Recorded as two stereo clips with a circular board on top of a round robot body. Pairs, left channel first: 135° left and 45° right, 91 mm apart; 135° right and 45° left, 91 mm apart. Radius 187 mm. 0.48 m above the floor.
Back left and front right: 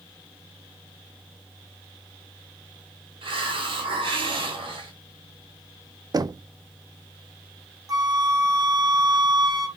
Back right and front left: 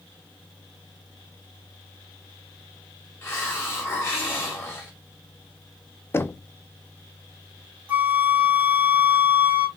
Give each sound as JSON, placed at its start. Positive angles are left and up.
{"t": 3.2, "sound": "a hiss", "azimuth_deg": -70, "distance_m": 1.4}
{"t": 6.1, "sound": "knocking", "azimuth_deg": -75, "distance_m": 0.5}
{"t": 7.9, "sound": "a flute", "azimuth_deg": -20, "distance_m": 1.5}